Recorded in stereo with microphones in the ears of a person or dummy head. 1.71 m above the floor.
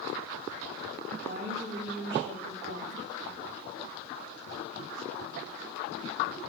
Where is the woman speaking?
60° right (ahead or behind), 2 m.